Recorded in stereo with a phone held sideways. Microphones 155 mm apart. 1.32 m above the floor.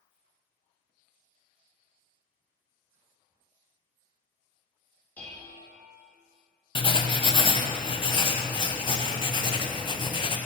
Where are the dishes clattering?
10° left (ahead or behind), 1.5 m.